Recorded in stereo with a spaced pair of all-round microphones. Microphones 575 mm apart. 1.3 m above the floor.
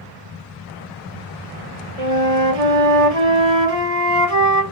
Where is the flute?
70° right (ahead or behind), 1.9 m.